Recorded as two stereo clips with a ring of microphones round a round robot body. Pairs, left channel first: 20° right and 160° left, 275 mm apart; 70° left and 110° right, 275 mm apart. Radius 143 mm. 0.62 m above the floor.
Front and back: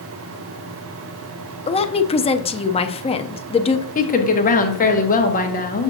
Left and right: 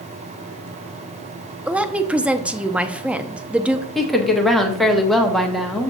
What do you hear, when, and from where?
1.7 s a woman speaking: 35° right, 0.5 m
4.0 s a woman speaking: 20° right, 1.1 m